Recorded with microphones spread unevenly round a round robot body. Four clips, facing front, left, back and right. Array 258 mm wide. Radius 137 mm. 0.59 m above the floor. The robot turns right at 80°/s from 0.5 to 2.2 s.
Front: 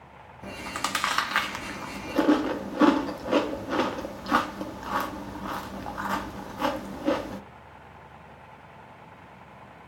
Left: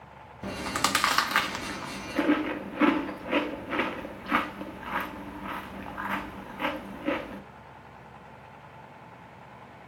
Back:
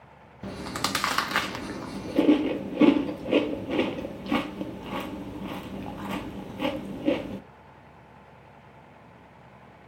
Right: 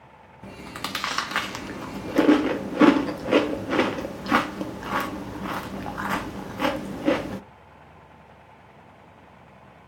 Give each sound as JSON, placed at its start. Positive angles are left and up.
{"t": 0.4, "sound": "chewing", "azimuth_deg": 120, "distance_m": 1.0}